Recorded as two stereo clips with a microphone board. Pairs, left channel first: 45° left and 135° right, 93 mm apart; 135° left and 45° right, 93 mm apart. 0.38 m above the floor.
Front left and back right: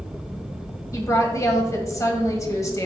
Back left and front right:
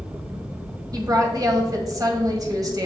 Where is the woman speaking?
5° right, 1.8 m.